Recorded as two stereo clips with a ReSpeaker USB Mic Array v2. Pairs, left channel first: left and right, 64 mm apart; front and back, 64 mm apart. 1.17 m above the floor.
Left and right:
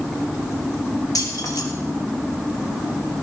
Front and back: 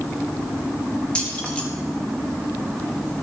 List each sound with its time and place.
1.1 s keys jangling: 75° left, 1.3 m